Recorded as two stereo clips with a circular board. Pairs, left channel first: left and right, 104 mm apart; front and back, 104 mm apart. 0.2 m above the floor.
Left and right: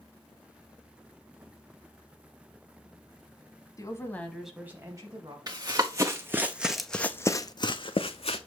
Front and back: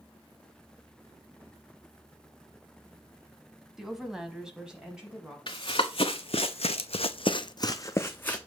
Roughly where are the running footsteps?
Ahead right.